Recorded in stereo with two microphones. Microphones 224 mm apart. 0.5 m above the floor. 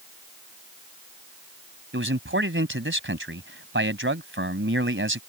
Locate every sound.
1.9 s a man speaking: 60° right (ahead or behind)